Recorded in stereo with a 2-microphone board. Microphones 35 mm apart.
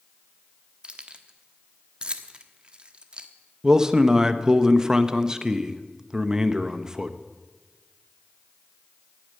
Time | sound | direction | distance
0.8 | keys jangling | 30° right (ahead or behind) | 1.1 m
3.6 | a man speaking | 15° right (ahead or behind) | 0.9 m